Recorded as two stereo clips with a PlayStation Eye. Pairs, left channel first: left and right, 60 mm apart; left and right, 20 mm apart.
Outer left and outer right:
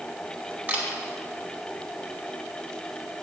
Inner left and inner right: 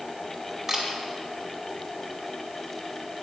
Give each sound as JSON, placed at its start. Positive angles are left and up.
{"t": 0.7, "sound": "a camera shutter", "side_deg": -25, "distance_m": 2.0}